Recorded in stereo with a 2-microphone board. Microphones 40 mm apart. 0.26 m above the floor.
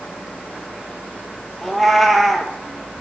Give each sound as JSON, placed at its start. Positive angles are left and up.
{"t": 1.6, "sound": "a cat meowing", "side_deg": 0, "distance_m": 0.5}